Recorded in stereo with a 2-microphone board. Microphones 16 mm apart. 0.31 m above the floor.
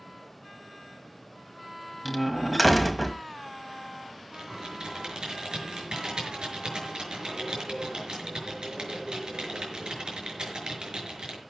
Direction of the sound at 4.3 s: 70° right (ahead or behind).